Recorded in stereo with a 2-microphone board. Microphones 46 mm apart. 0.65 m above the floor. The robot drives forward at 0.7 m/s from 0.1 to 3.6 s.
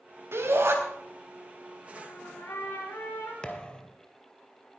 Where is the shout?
65° right (ahead or behind), 3.5 m; by 0.8 s 70° right (ahead or behind), 3.5 m.